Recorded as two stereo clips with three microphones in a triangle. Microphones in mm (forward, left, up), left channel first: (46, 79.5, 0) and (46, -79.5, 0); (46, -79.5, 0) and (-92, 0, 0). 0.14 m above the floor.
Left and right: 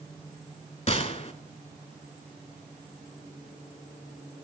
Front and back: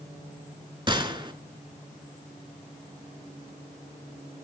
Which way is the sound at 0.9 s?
110° left.